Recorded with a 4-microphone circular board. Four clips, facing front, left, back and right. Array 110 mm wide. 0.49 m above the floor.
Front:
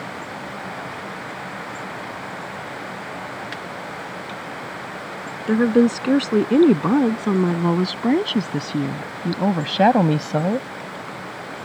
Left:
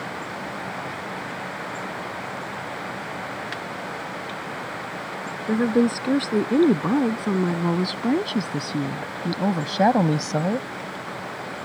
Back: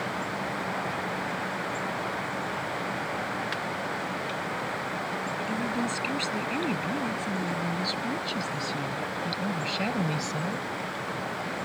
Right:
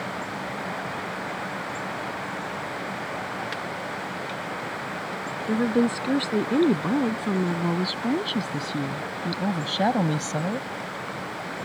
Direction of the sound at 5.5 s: 5° left.